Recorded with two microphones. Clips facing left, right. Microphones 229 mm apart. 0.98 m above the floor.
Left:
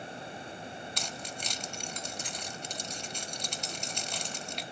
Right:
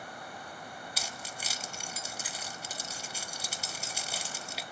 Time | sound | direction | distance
1.0 | keys jangling | 5° right (ahead or behind) | 0.8 m